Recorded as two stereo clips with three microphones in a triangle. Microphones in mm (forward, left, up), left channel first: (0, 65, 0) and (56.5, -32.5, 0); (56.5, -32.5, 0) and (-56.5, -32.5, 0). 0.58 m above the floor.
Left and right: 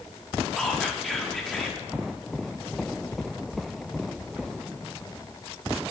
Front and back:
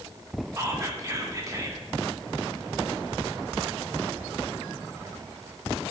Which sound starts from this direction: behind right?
Whispering, at 0.6 s.